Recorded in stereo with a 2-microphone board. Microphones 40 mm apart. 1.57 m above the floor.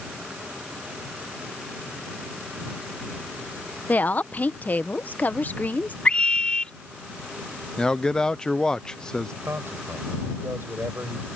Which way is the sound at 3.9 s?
45° left (ahead or behind).